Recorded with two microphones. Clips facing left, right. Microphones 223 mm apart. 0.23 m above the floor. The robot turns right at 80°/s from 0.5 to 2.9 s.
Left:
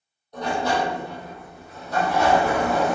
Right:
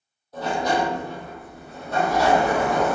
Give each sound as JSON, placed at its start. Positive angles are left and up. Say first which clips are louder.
{"t": 0.3, "sound": "a sliding door", "louder": "right 1 dB", "azimuth_deg": -175, "distance_m": 1.4}